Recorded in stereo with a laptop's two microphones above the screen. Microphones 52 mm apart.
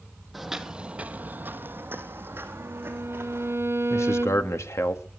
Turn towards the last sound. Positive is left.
turn(degrees=70)  # may be behind; listen again after turning